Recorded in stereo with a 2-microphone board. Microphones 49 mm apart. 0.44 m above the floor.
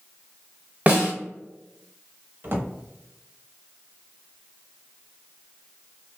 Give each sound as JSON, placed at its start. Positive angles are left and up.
{"t": 0.9, "sound": "a snare drum", "side_deg": -30, "distance_m": 1.2}
{"t": 2.4, "sound": "a drawer", "side_deg": -45, "distance_m": 0.8}